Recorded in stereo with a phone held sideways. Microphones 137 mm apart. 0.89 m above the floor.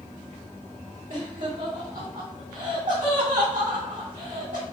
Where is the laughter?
70° right (ahead or behind), 2.0 m.